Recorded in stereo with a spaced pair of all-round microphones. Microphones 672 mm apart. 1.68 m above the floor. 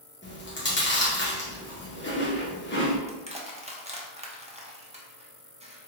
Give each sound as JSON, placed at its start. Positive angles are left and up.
{"t": 0.2, "sound": "chewing", "side_deg": 15, "distance_m": 0.9}
{"t": 3.1, "sound": "crushing", "side_deg": -10, "distance_m": 0.5}